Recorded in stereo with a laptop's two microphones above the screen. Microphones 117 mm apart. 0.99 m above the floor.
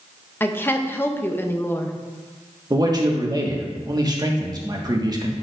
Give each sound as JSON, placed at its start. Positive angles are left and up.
{"t": 0.4, "sound": "a woman speaking", "side_deg": 20, "distance_m": 0.6}
{"t": 2.7, "sound": "a man speaking", "side_deg": -35, "distance_m": 1.3}